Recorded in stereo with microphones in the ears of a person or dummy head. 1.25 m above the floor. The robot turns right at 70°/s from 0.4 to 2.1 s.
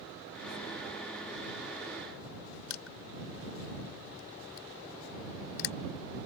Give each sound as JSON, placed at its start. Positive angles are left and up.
{"t": 2.7, "sound": "crushing", "side_deg": 80}